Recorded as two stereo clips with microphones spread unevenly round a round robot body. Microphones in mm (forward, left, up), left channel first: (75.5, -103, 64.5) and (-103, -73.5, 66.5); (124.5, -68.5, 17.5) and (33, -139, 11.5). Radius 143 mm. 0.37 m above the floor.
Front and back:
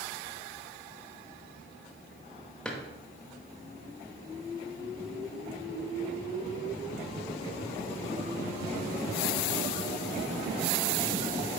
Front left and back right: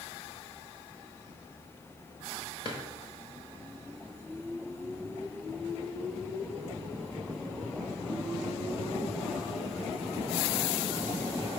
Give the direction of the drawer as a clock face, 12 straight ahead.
9 o'clock.